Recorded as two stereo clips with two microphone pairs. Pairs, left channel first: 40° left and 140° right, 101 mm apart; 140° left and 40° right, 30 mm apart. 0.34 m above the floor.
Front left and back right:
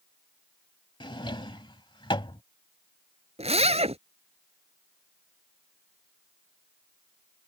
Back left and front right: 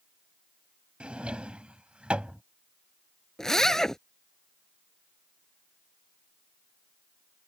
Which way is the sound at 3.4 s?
150° right.